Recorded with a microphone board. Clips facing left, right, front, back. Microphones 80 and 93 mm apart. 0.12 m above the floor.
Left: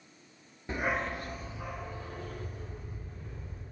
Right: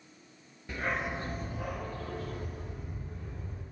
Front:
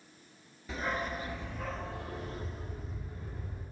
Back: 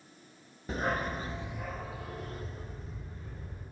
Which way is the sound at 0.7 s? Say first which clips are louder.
Left 2 dB, back 3 dB; 145° left.